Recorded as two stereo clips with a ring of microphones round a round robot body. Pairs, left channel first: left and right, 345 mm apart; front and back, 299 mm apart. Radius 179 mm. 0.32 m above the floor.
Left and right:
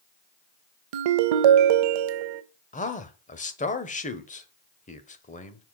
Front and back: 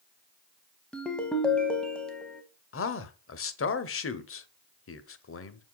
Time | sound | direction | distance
0.9 | a ringtone | 85° right | 0.6 m
2.7 | a man speaking | 25° left | 1.3 m